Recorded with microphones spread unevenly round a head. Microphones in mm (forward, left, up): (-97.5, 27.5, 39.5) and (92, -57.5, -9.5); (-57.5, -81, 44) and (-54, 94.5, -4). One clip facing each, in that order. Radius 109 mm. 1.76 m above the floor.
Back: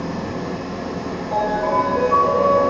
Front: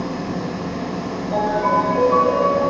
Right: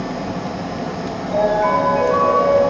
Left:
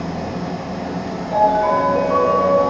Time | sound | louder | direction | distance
0.0 | an engine running | front 1 dB, right 1 dB | 40° right | 1.6 m
1.3 | a ringtone | front 1 dB, even | 25° left | 1.6 m